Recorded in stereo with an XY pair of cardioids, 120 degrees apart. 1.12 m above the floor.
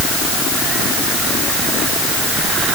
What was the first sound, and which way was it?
Only background noise.